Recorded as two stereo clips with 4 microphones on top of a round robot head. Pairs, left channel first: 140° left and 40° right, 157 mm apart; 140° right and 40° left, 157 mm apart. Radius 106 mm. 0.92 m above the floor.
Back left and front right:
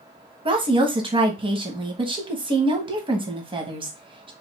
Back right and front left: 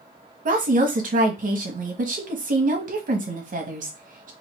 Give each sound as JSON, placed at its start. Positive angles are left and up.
{"t": 0.5, "sound": "a woman speaking", "azimuth_deg": 15, "distance_m": 1.1}